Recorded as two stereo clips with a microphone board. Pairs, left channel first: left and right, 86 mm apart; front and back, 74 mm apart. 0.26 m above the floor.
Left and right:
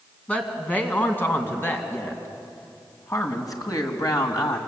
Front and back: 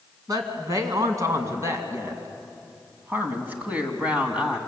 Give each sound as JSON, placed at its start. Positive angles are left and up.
{"t": 0.3, "sound": "a woman speaking", "azimuth_deg": 160, "distance_m": 3.0}